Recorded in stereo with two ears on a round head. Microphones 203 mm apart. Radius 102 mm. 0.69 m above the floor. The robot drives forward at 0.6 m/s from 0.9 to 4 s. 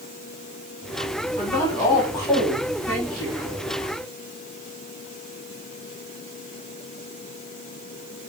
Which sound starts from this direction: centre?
A woman speaking, at 1.4 s.